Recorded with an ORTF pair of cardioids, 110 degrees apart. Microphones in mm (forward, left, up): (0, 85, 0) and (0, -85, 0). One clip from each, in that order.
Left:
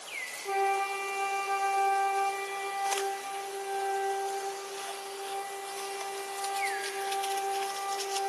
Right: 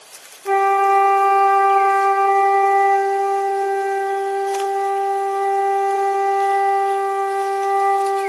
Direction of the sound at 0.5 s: 65° right.